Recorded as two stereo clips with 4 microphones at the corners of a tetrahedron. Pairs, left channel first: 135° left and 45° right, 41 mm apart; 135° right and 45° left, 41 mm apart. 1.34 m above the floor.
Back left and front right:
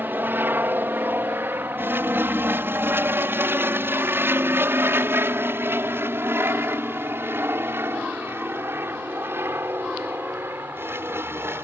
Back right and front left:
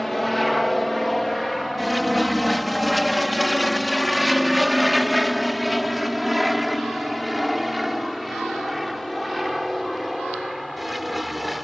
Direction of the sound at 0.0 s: 45° right.